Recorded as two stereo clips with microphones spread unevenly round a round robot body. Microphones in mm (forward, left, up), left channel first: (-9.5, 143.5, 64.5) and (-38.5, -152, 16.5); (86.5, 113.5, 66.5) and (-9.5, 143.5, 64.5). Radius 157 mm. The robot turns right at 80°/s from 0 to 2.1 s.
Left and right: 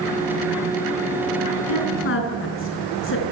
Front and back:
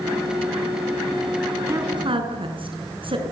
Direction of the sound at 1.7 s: 100° left.